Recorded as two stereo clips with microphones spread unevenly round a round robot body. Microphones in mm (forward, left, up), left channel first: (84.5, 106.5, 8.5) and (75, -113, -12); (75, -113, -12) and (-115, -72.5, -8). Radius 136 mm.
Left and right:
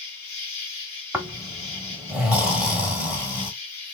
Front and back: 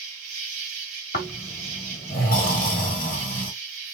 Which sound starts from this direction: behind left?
An insect, at 0.0 s.